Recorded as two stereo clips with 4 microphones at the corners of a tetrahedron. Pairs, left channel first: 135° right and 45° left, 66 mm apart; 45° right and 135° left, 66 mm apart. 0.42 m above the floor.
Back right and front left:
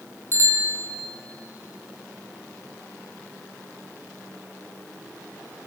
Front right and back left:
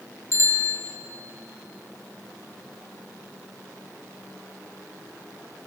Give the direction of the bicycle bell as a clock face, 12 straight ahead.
12 o'clock.